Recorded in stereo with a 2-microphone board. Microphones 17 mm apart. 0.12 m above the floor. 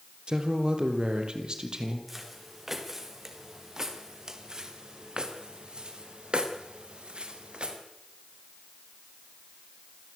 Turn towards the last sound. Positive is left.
turn(degrees=-85)